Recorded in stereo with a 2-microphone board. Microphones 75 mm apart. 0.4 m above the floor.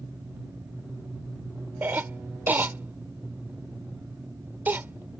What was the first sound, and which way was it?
A cough, 25° right (ahead or behind).